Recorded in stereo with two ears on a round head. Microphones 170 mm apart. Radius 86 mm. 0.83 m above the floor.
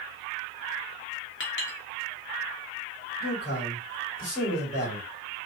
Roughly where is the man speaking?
Left.